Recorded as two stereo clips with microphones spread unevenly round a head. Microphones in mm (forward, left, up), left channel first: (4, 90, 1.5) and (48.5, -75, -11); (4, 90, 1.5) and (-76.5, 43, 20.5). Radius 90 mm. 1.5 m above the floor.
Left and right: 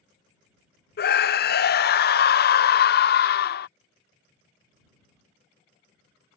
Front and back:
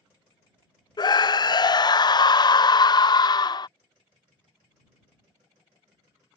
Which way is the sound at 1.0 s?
80° left.